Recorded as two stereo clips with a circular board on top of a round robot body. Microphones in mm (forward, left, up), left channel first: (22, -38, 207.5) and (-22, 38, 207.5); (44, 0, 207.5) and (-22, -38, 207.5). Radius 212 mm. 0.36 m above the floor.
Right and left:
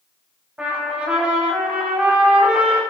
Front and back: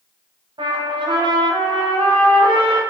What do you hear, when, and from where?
0.6 s a trumpet: 160° right, 1.0 m